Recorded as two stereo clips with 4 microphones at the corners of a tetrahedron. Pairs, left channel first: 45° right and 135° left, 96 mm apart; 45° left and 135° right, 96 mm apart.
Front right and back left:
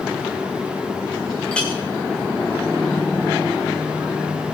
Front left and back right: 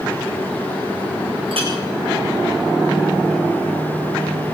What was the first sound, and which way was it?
A clink, 125° right.